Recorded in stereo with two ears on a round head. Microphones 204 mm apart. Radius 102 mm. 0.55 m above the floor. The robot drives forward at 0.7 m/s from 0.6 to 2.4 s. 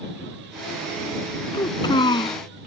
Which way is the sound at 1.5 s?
20° left (ahead or behind).